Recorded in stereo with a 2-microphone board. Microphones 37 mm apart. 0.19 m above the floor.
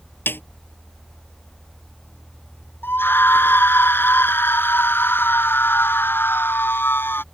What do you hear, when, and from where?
0.3 s a snare drum: 75° left (ahead or behind)
2.8 s a scream: 70° left (ahead or behind)